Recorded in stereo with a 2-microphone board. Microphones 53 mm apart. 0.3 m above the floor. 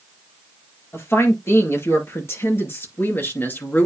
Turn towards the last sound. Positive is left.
turn(degrees=35)  # may be behind; listen again after turning